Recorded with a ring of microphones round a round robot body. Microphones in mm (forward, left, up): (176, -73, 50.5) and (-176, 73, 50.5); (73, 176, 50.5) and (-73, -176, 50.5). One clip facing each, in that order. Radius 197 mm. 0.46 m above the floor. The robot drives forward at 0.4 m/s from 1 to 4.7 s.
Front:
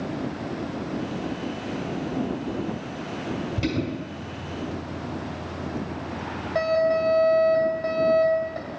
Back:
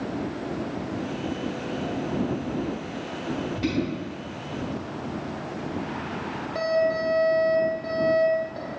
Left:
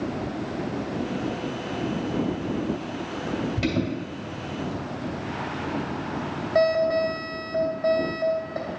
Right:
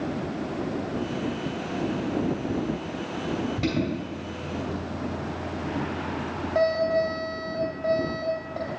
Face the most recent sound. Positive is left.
turn(degrees=60)